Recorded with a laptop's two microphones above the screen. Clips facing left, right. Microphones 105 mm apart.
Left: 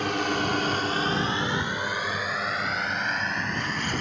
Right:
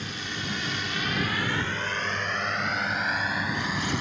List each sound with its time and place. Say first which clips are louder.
0.0 s a drone: left 10 dB; 75° left (ahead or behind); by 4.0 s 10° right (ahead or behind)
1.6 s tearing paper: left 1 dB; 55° left (ahead or behind)